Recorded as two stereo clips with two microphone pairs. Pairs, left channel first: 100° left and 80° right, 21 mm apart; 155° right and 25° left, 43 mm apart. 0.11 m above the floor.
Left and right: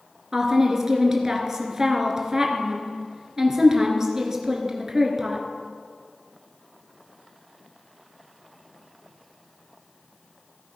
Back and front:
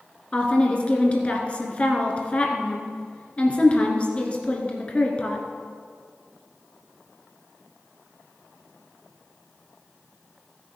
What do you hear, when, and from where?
0.3 s a woman speaking: 125° right, 1.9 m